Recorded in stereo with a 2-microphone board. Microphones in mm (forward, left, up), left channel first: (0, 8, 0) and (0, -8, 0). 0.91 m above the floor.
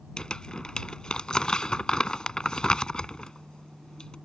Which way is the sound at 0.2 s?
65° left (ahead or behind).